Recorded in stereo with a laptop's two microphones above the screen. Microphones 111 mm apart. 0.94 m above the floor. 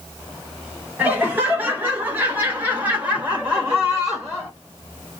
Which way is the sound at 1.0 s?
15° right (ahead or behind).